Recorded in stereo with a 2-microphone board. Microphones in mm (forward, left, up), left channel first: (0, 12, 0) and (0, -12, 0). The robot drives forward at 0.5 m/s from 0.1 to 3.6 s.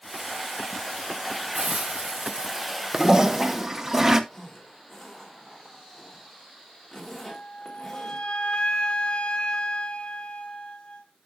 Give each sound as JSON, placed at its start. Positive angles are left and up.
{"t": 1.5, "sound": "a hiss", "side_deg": -40, "distance_m": 1.6}
{"t": 2.9, "sound": "a toilet flushing", "side_deg": -30, "distance_m": 0.6}
{"t": 4.3, "sound": "a zipper", "side_deg": 10, "distance_m": 3.0}
{"t": 7.3, "sound": "a flute", "side_deg": 55, "distance_m": 1.0}